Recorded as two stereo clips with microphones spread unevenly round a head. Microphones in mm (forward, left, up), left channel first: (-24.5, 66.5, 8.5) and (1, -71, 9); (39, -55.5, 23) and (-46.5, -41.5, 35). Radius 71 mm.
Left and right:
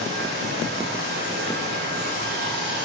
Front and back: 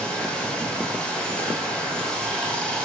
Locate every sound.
0.0 s running water: 90° right, 3.5 m